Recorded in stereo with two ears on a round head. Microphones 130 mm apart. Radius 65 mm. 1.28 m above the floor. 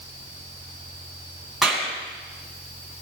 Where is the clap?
Centre (ahead or behind), 7 m.